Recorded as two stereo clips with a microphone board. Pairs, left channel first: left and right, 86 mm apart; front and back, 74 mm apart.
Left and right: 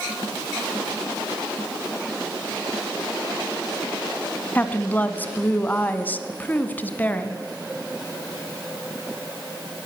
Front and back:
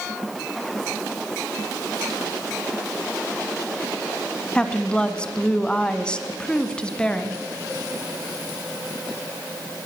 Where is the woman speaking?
55° left, 1.4 m.